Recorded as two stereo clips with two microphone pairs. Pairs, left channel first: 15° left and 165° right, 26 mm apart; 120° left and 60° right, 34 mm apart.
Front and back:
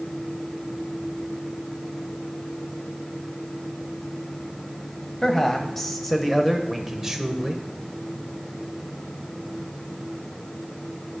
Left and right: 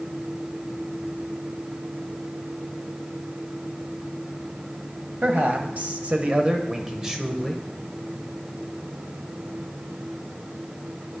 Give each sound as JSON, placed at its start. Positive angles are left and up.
{"t": 5.2, "sound": "a man speaking", "azimuth_deg": -60, "distance_m": 1.4}